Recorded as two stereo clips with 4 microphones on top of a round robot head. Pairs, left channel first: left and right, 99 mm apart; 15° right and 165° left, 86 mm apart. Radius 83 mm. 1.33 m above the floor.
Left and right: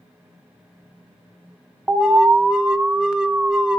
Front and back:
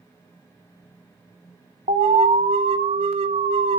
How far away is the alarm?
About 1.0 m.